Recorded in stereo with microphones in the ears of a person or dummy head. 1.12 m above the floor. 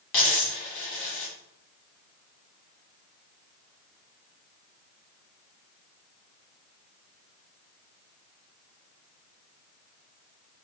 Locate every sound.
0.1 s a dropped coin: 35° left (ahead or behind), 1.2 m